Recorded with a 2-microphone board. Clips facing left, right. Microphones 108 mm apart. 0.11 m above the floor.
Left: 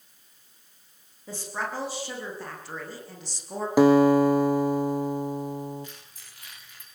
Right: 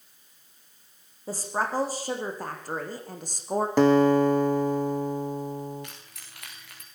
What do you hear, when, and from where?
1.3 s a woman speaking: 35° right (ahead or behind), 7.5 m; by 3.7 s 50° right (ahead or behind), 6 m
3.8 s a guitar: 10° left (ahead or behind), 1.7 m
5.8 s keys jangling: 70° right (ahead or behind), 9 m